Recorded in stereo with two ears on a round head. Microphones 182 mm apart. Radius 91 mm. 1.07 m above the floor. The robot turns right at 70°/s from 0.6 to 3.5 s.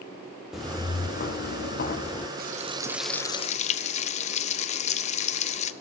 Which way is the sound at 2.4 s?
45° right.